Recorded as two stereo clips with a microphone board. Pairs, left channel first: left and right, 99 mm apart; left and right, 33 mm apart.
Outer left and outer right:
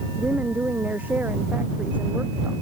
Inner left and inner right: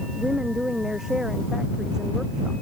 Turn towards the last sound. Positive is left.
turn(degrees=-15)  # may be behind; listen again after turning